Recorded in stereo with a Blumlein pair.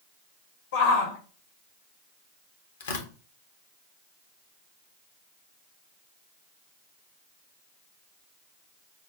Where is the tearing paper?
60° left, 0.8 m.